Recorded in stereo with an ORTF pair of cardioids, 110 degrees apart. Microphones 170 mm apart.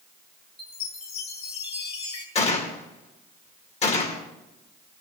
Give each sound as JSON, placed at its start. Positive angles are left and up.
{"t": 0.6, "sound": "a chime", "azimuth_deg": 35, "distance_m": 2.5}
{"t": 2.4, "sound": "a gunshot", "azimuth_deg": 35, "distance_m": 2.5}